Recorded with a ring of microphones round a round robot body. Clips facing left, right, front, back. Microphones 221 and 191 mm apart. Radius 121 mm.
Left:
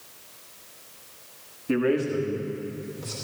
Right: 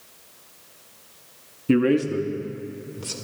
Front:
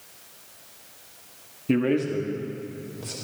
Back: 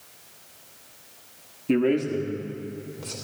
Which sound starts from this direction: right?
A man speaking, at 1.7 s.